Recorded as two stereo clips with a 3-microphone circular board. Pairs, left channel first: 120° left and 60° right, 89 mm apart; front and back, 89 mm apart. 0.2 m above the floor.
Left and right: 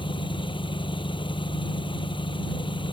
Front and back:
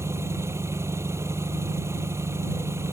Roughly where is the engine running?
Behind left.